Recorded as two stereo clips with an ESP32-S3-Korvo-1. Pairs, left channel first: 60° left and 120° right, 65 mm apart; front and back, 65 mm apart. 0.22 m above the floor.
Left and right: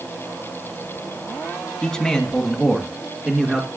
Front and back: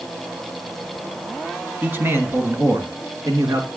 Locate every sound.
1.8 s a man speaking: 135° left, 1.6 m; by 3.7 s 165° left, 2.5 m